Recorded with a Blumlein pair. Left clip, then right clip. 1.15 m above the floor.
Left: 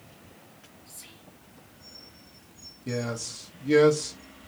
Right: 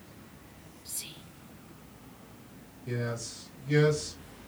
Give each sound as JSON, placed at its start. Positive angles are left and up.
{"t": 0.8, "sound": "whispering", "azimuth_deg": -50, "distance_m": 0.9}
{"t": 2.9, "sound": "a man speaking", "azimuth_deg": 25, "distance_m": 0.8}